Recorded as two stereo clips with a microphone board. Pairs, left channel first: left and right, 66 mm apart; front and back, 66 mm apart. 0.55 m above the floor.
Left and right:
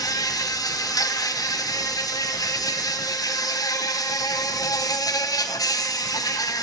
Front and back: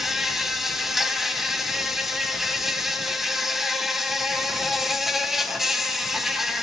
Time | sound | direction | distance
0.0 | an insect | 95° left | 3 m